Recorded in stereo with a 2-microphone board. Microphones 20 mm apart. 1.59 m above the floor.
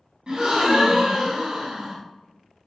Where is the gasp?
45° right (ahead or behind), 0.8 m.